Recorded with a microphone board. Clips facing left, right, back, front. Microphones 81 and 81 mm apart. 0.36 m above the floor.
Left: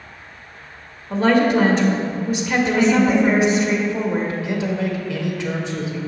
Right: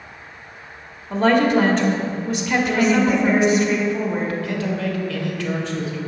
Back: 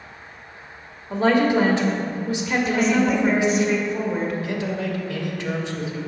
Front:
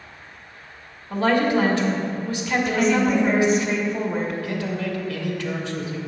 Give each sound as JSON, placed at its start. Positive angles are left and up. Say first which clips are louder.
{"t": 1.1, "sound": "a woman speaking", "louder": "even, back 1 dB", "azimuth_deg": 175, "distance_m": 0.8}
{"t": 2.6, "sound": "a woman speaking", "louder": "left 2 dB, even", "azimuth_deg": 85, "distance_m": 0.8}
{"t": 4.4, "sound": "a man speaking", "louder": "left 1 dB, back 1 dB", "azimuth_deg": 140, "distance_m": 0.9}